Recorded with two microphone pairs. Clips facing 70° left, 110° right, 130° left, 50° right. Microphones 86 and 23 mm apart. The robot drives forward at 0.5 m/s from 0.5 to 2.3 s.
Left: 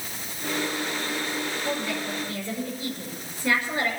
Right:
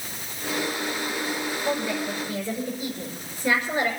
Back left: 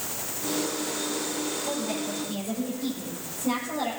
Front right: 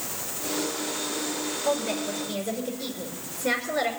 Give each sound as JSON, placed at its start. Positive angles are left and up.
{"t": 1.6, "sound": "a woman speaking", "azimuth_deg": -35, "distance_m": 6.0}